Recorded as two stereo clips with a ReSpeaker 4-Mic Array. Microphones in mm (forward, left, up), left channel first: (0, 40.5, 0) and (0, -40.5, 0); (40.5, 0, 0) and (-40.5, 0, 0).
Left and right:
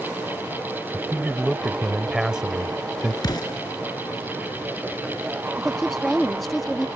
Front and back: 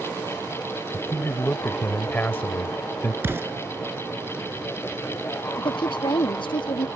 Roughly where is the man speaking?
Ahead.